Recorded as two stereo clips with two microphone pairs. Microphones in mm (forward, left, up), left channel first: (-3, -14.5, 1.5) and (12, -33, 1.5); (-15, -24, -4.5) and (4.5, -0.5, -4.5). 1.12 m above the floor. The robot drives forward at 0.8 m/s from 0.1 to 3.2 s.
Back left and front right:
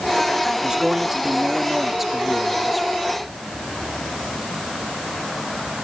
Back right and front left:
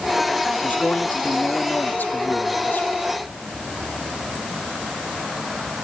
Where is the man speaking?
100° right; by 3.0 s 140° right.